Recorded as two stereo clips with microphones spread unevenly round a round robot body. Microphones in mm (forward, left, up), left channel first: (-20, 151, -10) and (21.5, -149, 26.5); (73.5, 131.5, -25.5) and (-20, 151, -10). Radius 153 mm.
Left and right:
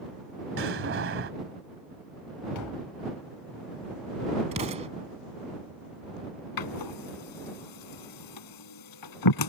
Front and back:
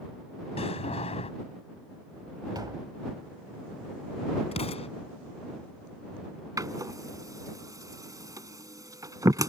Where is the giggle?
I don't hear a giggle.